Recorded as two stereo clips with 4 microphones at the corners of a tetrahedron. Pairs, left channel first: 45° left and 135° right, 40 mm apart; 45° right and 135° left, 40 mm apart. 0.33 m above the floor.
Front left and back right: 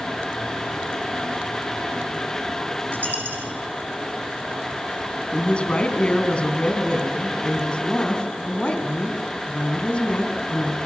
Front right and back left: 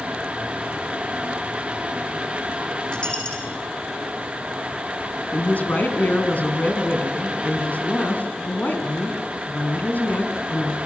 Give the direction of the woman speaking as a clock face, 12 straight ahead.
12 o'clock.